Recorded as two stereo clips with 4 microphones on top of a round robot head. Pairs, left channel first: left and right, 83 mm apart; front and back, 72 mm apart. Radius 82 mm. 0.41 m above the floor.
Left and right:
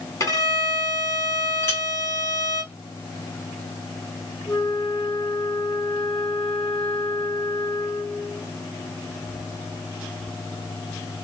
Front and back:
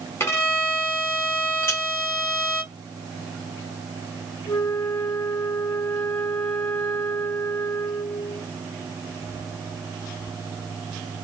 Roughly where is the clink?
Ahead left.